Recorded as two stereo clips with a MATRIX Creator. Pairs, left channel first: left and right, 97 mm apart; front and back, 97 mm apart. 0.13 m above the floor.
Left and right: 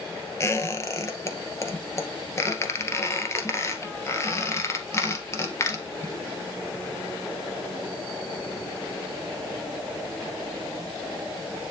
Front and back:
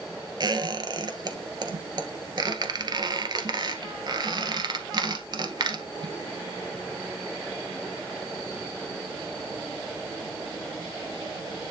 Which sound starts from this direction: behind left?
A squeak, at 0.4 s.